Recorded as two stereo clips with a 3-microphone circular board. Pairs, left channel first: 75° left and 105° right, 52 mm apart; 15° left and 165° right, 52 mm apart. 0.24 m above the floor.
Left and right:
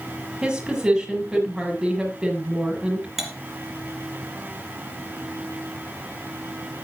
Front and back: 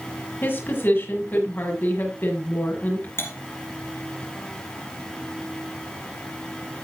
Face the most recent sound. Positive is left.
turn(degrees=-20)